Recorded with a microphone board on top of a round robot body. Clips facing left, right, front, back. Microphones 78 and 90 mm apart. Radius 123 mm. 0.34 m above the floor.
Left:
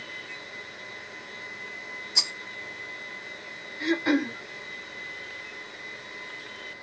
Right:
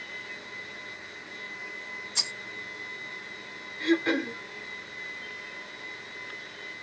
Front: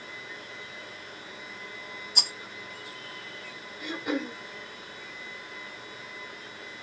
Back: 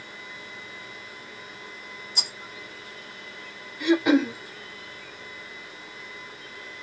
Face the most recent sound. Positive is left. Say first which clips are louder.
# left 1 dB, back 12 dB
turn(degrees=170)